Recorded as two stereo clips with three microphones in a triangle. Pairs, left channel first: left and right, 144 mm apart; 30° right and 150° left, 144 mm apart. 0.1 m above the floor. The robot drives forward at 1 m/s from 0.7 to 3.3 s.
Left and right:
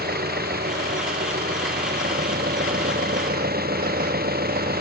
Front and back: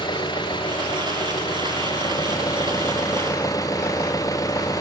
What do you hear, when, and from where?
0.0 s an engine running: 90° right; by 4.8 s 100° right